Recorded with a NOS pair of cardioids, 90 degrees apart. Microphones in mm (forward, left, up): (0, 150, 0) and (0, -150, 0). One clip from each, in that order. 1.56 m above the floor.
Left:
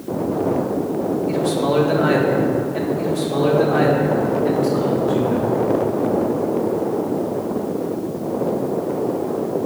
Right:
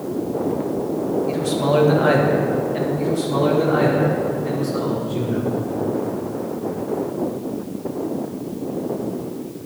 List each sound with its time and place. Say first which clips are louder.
1.3 s a man speaking: left 1 dB; 10° right, 1.8 m
3.0 s a man speaking: left 1 dB; 10° left, 1.8 m